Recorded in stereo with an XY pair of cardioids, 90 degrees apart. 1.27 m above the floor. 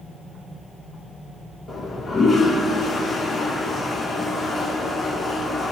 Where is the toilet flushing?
55° left, 2.5 m.